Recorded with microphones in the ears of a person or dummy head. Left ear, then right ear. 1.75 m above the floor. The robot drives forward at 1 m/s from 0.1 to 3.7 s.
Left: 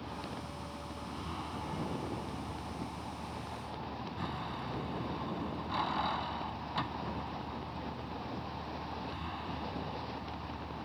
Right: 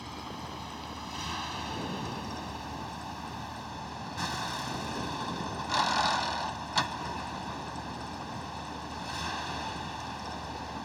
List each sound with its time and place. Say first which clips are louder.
0.0 s a vehicle: right 2 dB; 55° right (ahead or behind); by 10.9 s 80° right